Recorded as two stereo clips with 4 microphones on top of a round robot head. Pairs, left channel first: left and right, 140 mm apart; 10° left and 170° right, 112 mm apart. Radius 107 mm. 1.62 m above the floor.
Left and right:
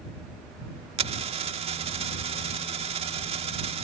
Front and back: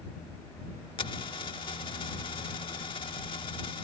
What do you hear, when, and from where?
1.0 s a dropped coin: 55° right